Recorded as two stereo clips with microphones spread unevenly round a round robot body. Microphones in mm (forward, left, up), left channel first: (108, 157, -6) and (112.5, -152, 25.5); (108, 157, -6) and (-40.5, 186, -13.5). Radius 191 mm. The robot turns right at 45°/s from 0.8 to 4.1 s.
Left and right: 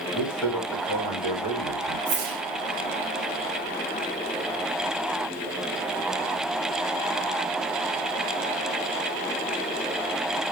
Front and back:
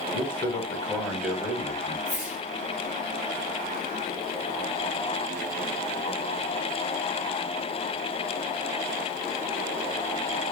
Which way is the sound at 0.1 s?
65° left.